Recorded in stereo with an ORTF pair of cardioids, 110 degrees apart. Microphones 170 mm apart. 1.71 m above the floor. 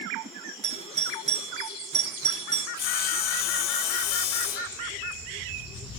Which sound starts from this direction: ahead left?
Sawing, at 2.8 s.